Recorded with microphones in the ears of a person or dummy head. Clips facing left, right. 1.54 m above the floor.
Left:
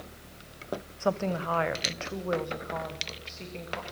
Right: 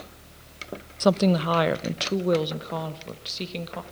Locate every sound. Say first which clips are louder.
1.0 s a woman speaking: right 9 dB; 55° right (ahead or behind), 0.6 m; by 3.8 s 50° right (ahead or behind), 2 m